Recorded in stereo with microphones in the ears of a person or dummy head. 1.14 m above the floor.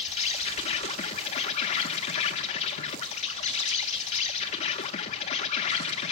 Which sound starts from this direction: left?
An insect, at 0.0 s.